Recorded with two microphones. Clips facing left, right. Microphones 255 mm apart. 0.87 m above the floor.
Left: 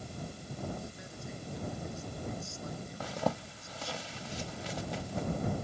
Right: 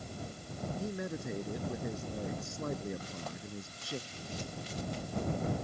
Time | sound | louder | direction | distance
0.8 | a man speaking | right 8 dB | 70° right (ahead or behind) | ?
3.0 | a zipper | left 9 dB | 85° left | ?